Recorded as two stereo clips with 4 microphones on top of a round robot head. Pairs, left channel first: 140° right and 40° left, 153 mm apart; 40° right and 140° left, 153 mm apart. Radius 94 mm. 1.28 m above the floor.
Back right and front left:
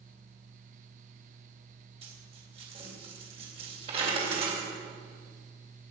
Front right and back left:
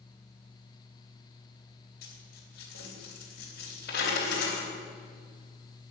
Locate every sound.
2.0 s a dropped coin: 15° right, 3.5 m